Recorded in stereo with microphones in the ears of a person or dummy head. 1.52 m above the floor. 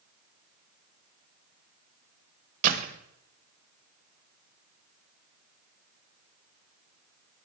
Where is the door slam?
45° right (ahead or behind), 0.8 m.